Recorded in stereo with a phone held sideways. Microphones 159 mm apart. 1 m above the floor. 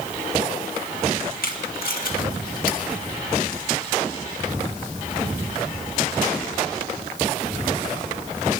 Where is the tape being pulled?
70° left (ahead or behind), 1.4 m.